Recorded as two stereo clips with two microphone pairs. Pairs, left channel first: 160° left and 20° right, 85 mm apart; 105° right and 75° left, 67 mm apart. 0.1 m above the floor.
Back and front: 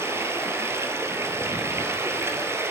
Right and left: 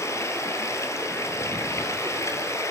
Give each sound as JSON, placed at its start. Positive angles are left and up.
{"t": 0.0, "sound": "running water", "azimuth_deg": -75, "distance_m": 1.7}